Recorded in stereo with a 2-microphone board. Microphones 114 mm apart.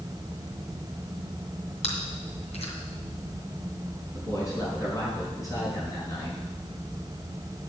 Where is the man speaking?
30° left (ahead or behind), 5.5 m.